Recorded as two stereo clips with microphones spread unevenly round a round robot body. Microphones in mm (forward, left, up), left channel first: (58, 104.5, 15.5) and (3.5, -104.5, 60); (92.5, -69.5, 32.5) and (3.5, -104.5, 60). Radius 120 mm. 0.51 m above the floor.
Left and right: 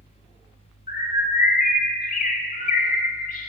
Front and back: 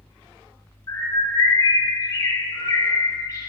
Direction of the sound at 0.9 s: 50° left.